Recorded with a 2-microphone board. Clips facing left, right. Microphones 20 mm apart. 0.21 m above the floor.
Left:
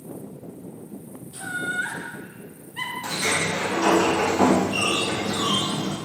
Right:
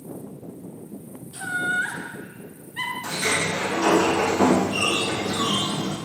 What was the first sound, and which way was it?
Laughter, 5° right (ahead or behind).